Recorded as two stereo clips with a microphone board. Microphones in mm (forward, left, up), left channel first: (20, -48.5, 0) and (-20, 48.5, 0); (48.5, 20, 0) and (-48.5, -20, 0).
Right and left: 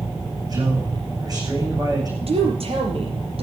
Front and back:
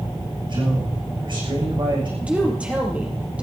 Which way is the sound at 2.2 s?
125° left.